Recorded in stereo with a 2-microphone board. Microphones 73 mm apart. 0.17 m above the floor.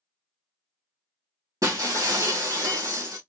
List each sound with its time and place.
1.6 s breaking glass: 55° right (ahead or behind), 1.4 m